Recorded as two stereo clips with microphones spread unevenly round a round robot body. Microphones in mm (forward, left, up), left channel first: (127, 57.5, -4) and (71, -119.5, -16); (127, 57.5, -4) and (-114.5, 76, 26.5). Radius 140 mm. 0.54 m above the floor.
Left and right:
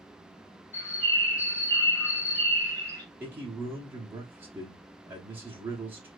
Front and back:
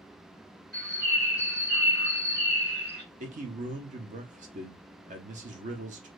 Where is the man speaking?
160° right, 0.7 m.